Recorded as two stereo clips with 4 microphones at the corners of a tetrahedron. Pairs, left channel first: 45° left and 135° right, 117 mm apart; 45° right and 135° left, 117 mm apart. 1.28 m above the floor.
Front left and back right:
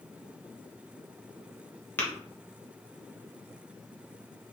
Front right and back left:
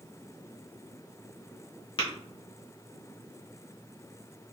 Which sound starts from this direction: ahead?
Tapping, at 2.0 s.